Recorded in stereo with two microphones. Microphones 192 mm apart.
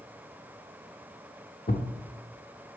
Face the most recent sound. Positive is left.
turn(degrees=55)  # may be behind; listen again after turning